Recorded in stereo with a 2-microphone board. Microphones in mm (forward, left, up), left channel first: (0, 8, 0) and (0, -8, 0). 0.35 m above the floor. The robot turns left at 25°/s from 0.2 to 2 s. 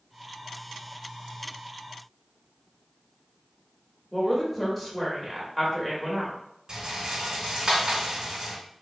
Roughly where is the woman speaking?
Centre.